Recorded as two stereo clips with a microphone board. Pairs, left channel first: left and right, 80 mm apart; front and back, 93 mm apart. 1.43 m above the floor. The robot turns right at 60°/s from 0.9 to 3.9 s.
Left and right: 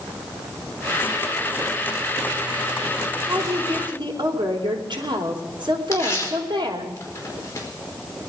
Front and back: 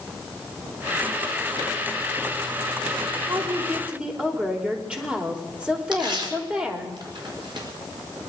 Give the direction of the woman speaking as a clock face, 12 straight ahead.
5 o'clock.